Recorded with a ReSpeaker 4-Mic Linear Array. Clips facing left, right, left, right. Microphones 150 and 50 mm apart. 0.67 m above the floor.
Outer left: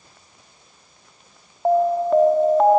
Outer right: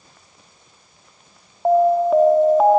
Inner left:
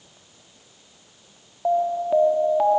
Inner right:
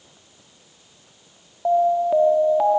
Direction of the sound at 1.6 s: 5° right (ahead or behind).